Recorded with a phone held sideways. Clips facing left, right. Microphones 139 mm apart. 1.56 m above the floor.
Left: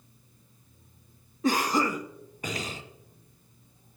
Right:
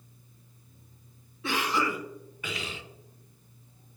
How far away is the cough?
About 0.7 m.